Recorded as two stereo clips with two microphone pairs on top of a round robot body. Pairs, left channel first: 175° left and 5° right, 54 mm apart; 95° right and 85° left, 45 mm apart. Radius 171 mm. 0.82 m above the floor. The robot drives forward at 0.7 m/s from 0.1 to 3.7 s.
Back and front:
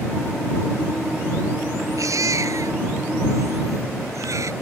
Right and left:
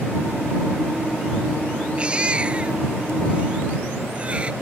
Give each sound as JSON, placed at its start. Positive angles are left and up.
{"t": 2.0, "sound": "a baby crying", "azimuth_deg": 20}